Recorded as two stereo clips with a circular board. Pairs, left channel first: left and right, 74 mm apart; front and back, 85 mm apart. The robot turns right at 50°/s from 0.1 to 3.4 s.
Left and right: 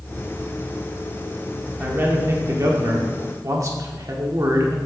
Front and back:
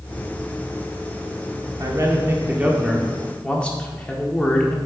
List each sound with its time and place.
1.8 s a man speaking: 155° right, 1.4 m; by 4.8 s 75° right, 1.4 m